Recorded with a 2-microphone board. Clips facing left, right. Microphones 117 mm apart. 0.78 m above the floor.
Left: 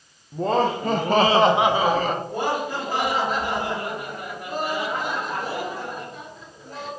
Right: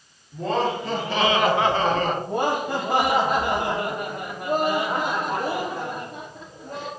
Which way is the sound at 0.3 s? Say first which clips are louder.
Left 2 dB; 35° left (ahead or behind).